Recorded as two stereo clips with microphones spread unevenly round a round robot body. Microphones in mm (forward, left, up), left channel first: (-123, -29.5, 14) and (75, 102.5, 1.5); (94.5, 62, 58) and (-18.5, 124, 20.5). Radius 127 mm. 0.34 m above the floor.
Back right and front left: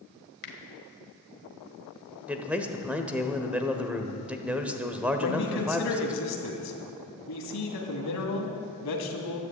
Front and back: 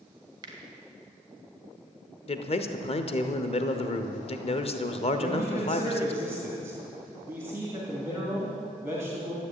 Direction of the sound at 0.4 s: Straight behind.